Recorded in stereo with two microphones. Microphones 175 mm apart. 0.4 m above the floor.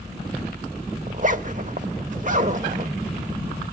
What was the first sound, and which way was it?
A zipper, 45° right (ahead or behind).